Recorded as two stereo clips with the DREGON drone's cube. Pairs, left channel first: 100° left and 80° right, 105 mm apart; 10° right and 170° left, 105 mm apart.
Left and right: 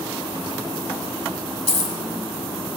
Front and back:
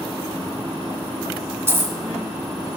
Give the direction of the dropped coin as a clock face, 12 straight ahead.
9 o'clock.